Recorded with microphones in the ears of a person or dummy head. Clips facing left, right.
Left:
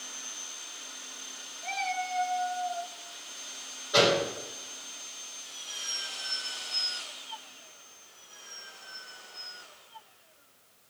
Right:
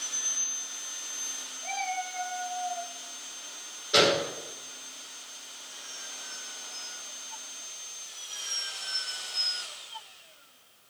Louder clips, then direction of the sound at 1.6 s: Even; 5° left (ahead or behind).